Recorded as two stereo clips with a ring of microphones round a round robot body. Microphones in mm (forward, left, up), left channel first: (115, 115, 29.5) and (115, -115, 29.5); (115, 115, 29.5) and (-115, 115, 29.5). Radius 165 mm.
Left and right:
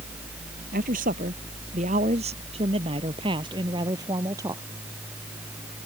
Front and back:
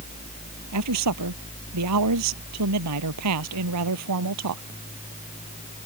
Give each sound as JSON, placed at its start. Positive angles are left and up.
{"t": 0.7, "sound": "a man speaking", "azimuth_deg": -155}